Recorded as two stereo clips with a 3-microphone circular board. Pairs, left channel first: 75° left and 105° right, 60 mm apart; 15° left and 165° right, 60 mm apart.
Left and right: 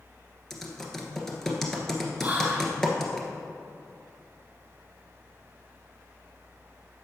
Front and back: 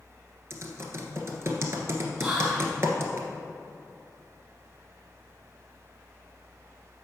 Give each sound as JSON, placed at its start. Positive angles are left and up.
{"t": 0.5, "sound": "typing on a keyboard", "azimuth_deg": 160, "distance_m": 1.3}
{"t": 2.2, "sound": "whispering", "azimuth_deg": -100, "distance_m": 1.2}